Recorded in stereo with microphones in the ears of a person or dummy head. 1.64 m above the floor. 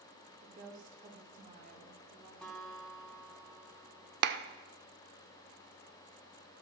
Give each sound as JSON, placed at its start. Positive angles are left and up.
{"t": 0.4, "sound": "a woman speaking", "side_deg": -40, "distance_m": 5.0}
{"t": 2.4, "sound": "a guitar", "side_deg": 0, "distance_m": 2.5}
{"t": 4.2, "sound": "a clap", "side_deg": -50, "distance_m": 0.6}